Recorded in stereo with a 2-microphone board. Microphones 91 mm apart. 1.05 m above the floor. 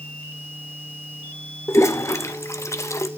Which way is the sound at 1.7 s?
30° left (ahead or behind).